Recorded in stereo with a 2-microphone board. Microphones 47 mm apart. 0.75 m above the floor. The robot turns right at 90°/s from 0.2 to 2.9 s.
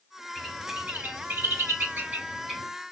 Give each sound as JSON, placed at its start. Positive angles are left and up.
{"t": 0.3, "sound": "a bird", "side_deg": 10, "distance_m": 1.8}